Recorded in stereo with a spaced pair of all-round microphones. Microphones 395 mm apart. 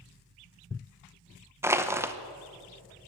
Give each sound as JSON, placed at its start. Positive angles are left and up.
{"t": 1.6, "sound": "crushing", "side_deg": -5, "distance_m": 0.7}